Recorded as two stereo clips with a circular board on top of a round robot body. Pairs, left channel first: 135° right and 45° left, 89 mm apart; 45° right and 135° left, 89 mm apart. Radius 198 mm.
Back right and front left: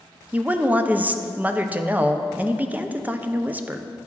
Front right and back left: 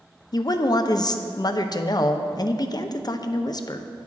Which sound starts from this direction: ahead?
A woman speaking, at 0.3 s.